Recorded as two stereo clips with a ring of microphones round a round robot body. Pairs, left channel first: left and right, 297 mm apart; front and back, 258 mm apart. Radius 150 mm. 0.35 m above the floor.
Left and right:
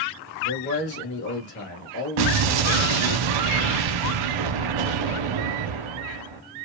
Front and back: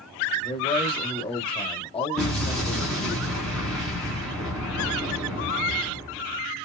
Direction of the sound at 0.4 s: 60° left.